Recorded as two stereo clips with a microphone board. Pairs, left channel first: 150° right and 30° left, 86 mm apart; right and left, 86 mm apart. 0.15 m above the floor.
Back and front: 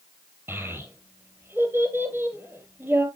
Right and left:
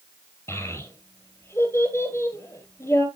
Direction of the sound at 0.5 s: 35° right.